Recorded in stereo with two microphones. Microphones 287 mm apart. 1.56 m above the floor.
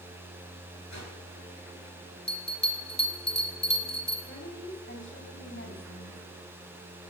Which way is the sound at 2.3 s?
35° left (ahead or behind).